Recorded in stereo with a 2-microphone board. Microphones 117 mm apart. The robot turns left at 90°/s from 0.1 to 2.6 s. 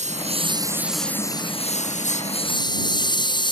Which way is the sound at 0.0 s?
75° right (ahead or behind).